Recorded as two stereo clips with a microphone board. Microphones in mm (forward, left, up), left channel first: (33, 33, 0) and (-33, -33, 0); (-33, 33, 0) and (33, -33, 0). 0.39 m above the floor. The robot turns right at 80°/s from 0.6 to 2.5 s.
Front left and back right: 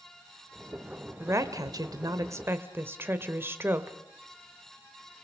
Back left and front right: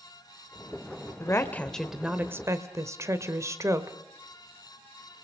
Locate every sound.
1.2 s a woman speaking: 175° left, 1.2 m; by 4.0 s 85° right, 1.2 m